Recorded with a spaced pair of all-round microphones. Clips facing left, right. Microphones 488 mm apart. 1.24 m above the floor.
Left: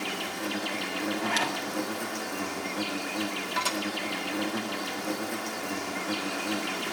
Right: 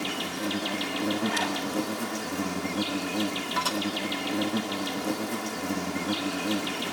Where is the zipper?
80° left, 2 m.